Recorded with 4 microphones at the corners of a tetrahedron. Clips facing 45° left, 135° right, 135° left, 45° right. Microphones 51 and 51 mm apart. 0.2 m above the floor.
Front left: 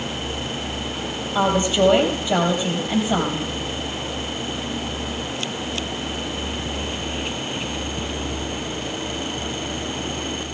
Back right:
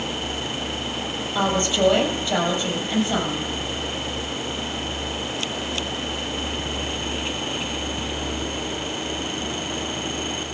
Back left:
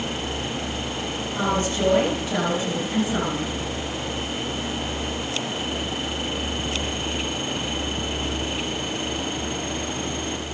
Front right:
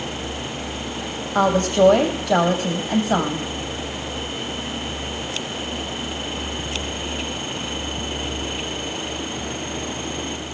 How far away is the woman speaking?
About 6.5 m.